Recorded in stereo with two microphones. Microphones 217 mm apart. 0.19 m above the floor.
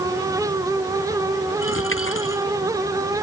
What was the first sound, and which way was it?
A dropped coin, 70° left (ahead or behind).